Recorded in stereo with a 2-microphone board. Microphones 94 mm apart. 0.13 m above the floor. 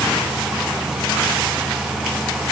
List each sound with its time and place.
Only background noise.